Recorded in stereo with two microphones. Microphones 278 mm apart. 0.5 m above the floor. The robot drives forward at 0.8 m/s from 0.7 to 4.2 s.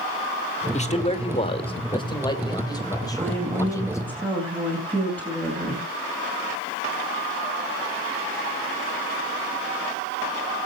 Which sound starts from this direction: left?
A man speaking, at 0.7 s.